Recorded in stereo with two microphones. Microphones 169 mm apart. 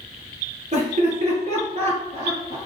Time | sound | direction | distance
0.7 | laughter | 45° right (ahead or behind) | 2.5 m